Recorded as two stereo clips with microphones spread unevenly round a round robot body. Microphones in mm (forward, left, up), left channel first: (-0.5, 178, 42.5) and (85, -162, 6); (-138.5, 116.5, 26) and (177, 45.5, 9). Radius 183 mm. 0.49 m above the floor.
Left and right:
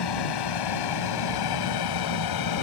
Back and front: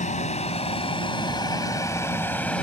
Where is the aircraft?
100° left; by 2.6 s 80° left.